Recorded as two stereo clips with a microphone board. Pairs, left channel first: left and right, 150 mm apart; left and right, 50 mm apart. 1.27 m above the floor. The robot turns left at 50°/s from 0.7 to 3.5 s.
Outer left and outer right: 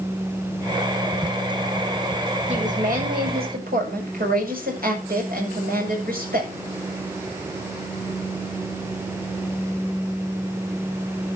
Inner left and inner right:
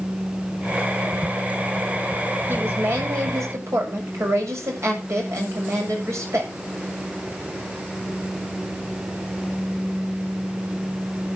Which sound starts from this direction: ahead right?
A woman speaking, at 2.5 s.